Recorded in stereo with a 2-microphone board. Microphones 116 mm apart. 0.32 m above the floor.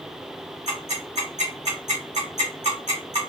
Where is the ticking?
85° right, 2.5 m.